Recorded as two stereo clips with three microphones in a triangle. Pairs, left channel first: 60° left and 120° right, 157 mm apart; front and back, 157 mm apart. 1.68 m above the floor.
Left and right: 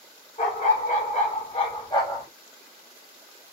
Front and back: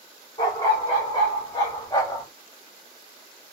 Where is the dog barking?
55° left, 1.9 m; by 2.3 s 30° left, 1.1 m.